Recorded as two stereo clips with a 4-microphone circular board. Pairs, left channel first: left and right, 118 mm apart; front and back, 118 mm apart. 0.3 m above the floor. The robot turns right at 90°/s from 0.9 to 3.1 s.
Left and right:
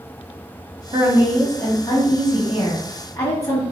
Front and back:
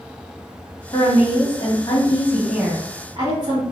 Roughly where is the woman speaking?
Ahead right.